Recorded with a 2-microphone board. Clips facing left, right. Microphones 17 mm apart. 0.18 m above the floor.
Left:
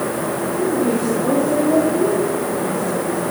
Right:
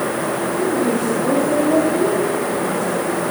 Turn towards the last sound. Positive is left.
turn(degrees=0)  # may be behind; listen again after turning